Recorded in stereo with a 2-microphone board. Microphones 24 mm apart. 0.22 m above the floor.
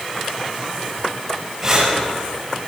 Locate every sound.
1.6 s breathing: 20° right (ahead or behind), 6 m